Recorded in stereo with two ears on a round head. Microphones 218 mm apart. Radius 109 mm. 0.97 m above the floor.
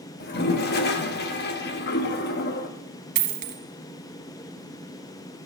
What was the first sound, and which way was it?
A toilet flushing, 40° left (ahead or behind).